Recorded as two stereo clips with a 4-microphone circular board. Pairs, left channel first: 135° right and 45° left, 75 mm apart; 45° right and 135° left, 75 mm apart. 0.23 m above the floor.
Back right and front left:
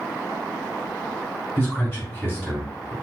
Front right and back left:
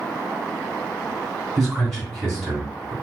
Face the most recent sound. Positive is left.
turn(degrees=-125)